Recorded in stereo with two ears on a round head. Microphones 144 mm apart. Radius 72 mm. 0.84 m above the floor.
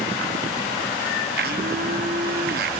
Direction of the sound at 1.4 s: 60° right (ahead or behind).